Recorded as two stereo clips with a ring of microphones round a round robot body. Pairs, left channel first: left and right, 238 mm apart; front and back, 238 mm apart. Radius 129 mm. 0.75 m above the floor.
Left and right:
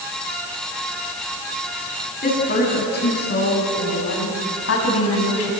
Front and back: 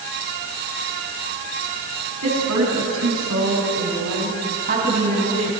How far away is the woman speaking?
About 7 m.